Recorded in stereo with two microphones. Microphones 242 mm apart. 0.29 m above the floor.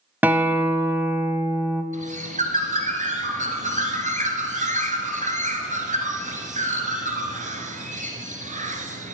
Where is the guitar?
5° right (ahead or behind), 0.7 m.